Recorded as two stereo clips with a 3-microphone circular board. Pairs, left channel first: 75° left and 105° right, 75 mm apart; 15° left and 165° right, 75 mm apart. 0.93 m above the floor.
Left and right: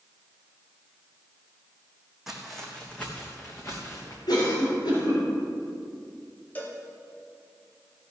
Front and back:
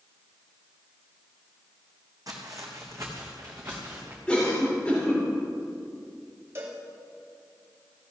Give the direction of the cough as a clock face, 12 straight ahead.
9 o'clock.